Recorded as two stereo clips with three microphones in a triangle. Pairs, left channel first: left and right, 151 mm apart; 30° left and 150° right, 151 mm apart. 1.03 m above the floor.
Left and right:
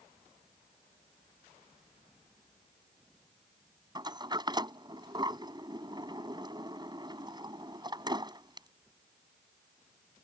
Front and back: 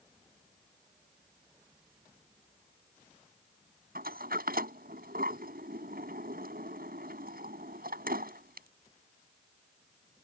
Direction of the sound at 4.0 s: 150° right.